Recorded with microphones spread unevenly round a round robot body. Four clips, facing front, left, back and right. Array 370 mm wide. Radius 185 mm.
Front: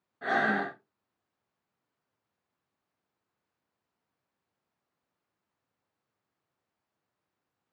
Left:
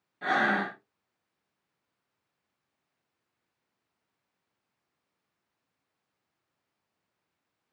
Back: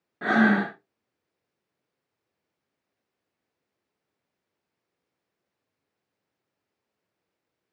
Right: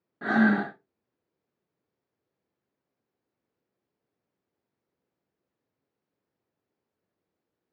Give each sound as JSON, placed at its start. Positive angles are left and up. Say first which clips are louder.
{"t": 0.2, "sound": "breathing", "louder": "right 4 dB, back 7 dB", "azimuth_deg": -150, "distance_m": 0.6}